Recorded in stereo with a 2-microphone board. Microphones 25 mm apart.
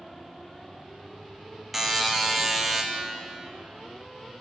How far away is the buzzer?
About 0.5 m.